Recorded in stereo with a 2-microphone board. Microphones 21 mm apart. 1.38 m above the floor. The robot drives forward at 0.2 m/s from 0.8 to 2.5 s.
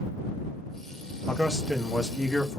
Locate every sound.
1.3 s a man speaking: 20° left (ahead or behind), 0.8 m; by 2.6 s 15° left (ahead or behind), 1.0 m